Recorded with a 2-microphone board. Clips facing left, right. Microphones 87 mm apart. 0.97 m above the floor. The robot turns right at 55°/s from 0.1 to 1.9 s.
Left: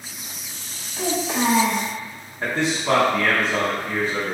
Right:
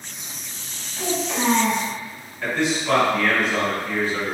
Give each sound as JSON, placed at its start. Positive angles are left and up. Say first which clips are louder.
{"t": 1.0, "sound": "a child speaking", "louder": "left 1 dB", "azimuth_deg": 25, "distance_m": 1.2}
{"t": 2.4, "sound": "a man speaking", "louder": "even", "side_deg": 30, "distance_m": 1.0}